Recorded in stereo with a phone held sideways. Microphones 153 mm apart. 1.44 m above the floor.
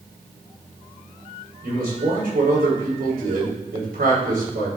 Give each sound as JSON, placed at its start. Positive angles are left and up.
{"t": 1.6, "sound": "a man speaking", "side_deg": -90, "distance_m": 4.5}